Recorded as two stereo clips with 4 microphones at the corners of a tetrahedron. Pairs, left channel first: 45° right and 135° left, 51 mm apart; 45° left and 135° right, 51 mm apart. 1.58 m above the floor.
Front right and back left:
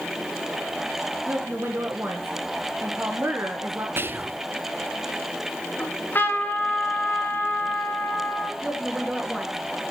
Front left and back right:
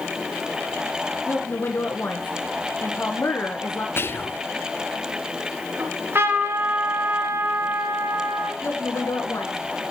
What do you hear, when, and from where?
1.3 s a woman speaking: 90° left, 1.4 m
4.0 s whispering: 85° left, 0.6 m
5.8 s a trumpet: 95° right, 1.9 m
8.6 s a woman speaking: 55° left, 2.5 m